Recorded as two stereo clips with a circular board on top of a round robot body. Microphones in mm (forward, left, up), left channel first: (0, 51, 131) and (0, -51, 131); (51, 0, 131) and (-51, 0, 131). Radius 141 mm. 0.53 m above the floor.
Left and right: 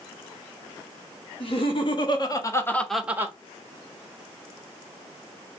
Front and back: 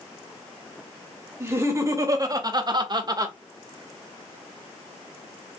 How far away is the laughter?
About 1.7 m.